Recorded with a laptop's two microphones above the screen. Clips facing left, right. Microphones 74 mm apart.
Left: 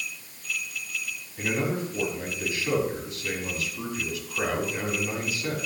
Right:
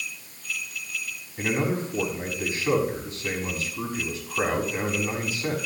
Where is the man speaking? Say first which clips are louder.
Right 2 dB; 35° right (ahead or behind), 6.5 m.